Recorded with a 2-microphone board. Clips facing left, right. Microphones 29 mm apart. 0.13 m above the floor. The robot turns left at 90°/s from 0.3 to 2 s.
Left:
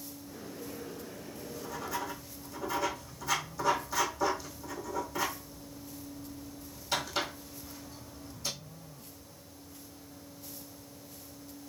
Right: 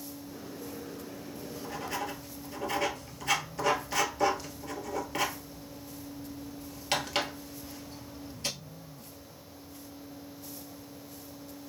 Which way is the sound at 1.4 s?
20° right (ahead or behind).